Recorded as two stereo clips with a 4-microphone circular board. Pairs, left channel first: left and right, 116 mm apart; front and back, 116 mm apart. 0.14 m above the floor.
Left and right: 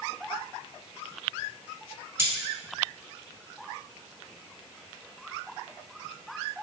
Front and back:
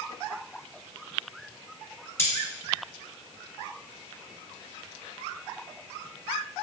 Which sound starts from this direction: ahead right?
Cutlery clinking, at 2.2 s.